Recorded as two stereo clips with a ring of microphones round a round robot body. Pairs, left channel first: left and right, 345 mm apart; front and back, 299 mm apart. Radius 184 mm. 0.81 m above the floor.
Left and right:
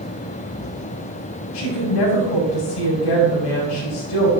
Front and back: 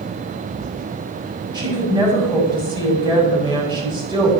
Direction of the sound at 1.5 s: 100° left.